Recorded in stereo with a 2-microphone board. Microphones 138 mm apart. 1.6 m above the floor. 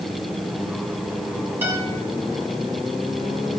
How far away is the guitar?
About 6 m.